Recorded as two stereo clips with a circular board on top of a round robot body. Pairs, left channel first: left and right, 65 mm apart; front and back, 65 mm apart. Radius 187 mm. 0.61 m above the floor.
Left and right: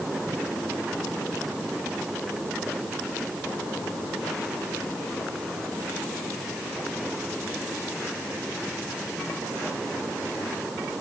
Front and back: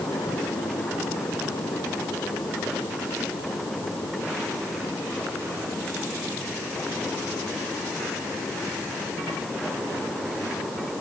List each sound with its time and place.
Only background noise.